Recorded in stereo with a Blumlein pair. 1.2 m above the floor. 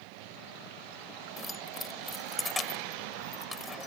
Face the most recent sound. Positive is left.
turn(degrees=10)